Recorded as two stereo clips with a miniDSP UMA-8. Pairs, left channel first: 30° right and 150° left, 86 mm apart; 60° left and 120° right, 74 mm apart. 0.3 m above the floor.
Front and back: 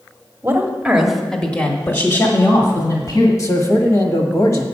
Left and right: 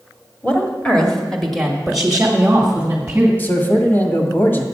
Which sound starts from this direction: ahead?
A man speaking, at 3.4 s.